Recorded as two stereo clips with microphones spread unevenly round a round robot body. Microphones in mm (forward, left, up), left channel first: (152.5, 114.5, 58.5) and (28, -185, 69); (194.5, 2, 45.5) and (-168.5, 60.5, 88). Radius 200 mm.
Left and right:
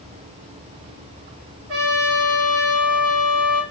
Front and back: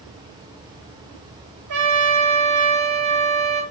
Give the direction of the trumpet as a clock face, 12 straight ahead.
5 o'clock.